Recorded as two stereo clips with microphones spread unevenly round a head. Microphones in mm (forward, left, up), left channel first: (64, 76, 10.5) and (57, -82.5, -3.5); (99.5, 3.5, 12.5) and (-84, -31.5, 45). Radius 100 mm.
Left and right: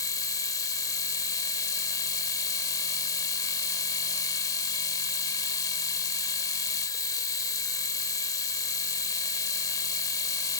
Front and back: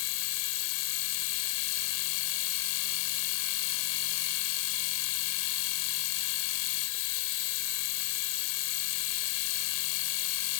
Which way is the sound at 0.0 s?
20° left.